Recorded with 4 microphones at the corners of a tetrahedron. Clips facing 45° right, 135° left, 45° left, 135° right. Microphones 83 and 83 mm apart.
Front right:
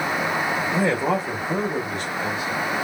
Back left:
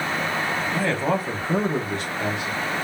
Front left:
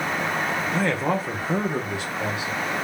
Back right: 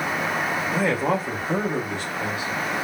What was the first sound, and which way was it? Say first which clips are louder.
A man speaking: front right 2 dB, back right 2 dB; 65° right.